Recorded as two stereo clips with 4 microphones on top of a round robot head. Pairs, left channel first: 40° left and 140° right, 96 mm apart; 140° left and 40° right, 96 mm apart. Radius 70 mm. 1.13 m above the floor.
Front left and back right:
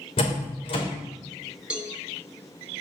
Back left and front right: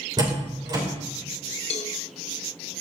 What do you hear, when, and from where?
0.2 s a door slam: 10° left, 3 m
1.7 s a cowbell: 145° left, 1.3 m